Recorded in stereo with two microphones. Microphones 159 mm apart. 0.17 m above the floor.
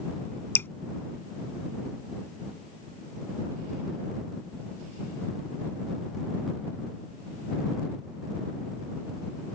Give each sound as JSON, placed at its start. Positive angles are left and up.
{"t": 0.6, "sound": "dripping", "side_deg": 15}